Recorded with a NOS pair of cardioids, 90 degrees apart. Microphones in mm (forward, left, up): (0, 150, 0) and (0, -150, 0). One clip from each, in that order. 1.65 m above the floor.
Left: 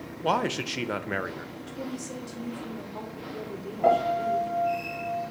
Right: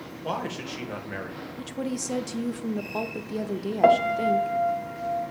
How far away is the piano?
About 0.9 m.